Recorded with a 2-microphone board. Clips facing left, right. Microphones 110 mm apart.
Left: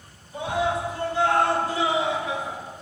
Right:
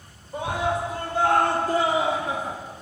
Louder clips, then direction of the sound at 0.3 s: Even; 55° right (ahead or behind).